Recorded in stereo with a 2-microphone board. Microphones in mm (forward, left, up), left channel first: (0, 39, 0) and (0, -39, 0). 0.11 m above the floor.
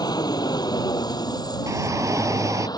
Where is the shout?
45° right (ahead or behind).